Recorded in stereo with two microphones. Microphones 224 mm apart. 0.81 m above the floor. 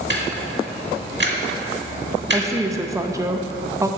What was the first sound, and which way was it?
Ticking, 55° right (ahead or behind).